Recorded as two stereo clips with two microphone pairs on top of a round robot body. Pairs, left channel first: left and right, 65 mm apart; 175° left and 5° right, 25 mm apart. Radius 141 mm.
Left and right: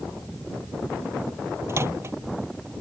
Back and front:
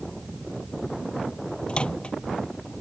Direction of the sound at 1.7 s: 135° right.